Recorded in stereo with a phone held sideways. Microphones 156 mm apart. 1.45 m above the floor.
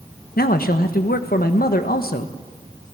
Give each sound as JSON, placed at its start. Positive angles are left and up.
{"t": 0.4, "sound": "a man speaking", "side_deg": 75, "distance_m": 1.2}